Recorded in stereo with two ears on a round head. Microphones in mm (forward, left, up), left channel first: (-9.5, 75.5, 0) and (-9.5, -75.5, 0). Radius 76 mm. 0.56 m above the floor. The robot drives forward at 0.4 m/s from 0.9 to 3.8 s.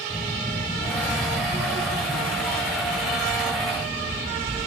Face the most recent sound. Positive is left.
turn(degrees=10)  # may be behind; listen again after turning